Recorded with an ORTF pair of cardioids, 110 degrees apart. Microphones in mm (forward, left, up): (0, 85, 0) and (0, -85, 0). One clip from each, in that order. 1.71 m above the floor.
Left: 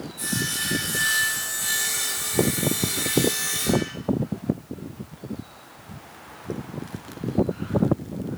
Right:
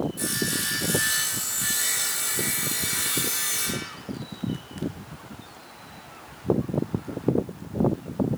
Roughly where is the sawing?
Ahead right.